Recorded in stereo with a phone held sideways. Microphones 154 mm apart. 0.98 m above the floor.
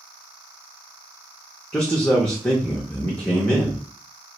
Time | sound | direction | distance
1.7 | a man speaking | 5° left (ahead or behind) | 0.5 m